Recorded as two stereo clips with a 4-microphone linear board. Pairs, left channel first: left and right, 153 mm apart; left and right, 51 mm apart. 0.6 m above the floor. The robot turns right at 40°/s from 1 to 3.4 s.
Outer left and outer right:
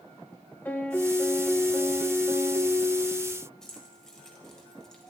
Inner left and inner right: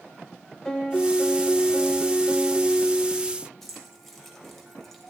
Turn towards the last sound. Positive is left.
turn(degrees=5)  # may be behind; listen again after turning